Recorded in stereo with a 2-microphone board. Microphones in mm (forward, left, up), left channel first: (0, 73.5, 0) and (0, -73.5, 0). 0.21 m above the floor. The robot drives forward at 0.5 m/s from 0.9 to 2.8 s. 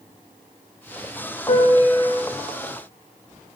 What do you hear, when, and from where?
1.5 s a piano: 85° left, 3 m